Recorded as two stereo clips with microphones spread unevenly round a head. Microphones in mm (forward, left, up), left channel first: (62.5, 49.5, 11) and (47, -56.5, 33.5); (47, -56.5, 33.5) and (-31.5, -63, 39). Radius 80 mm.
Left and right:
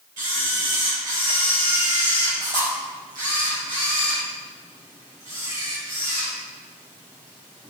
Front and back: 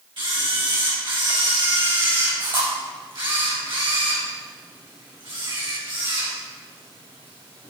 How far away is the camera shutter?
About 3.5 m.